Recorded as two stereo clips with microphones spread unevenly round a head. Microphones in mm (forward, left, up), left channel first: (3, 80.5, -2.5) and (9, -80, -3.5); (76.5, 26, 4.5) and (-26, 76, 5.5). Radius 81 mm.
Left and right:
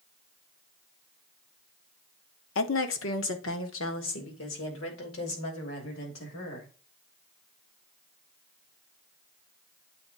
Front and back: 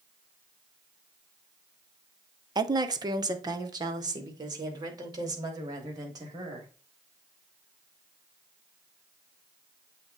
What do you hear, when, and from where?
2.5 s a woman speaking: 100° left, 0.8 m